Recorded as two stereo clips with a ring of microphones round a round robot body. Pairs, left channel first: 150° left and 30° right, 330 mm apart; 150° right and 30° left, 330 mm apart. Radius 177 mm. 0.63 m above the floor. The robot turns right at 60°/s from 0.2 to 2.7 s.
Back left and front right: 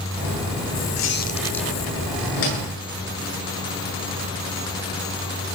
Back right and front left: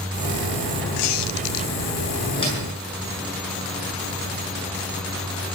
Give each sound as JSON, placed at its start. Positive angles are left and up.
{"t": 1.0, "sound": "a squeak", "azimuth_deg": -160, "distance_m": 0.7}
{"t": 2.4, "sound": "a door slam", "azimuth_deg": 130, "distance_m": 8.0}